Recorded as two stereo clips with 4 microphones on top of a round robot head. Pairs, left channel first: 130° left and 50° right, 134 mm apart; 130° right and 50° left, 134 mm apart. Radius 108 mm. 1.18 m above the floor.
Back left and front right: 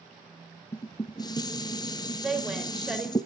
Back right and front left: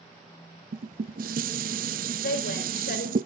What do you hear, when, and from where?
0.7 s dishes clattering: 70° left, 0.7 m
2.2 s a woman speaking: 135° right, 4 m